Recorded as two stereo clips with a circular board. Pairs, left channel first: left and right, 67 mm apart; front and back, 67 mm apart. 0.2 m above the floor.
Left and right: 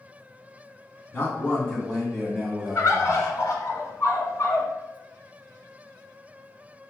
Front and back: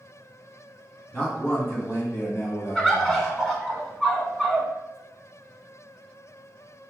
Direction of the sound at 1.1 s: 50° left.